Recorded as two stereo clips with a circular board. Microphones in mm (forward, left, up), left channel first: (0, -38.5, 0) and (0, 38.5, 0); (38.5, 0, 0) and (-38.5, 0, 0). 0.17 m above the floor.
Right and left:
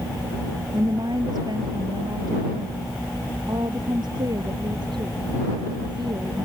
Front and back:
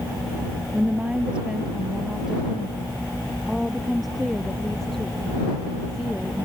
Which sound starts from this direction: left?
A woman speaking, at 0.7 s.